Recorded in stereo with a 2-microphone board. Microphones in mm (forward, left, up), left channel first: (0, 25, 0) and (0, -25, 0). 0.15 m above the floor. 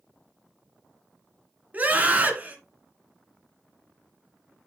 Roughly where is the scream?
Right.